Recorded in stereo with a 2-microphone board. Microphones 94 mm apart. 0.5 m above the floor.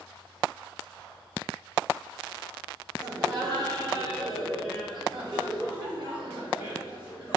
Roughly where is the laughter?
Right.